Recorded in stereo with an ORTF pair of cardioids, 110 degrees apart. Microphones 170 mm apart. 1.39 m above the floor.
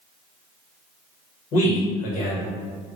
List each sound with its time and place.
1.5 s a man speaking: 50° left, 1.5 m